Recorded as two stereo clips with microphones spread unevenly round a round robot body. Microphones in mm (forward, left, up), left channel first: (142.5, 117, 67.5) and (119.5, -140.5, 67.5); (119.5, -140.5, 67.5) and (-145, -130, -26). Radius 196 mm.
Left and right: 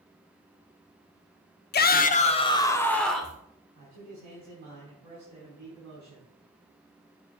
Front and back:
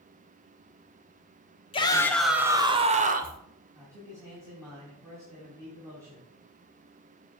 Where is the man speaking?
110° right, 4 m.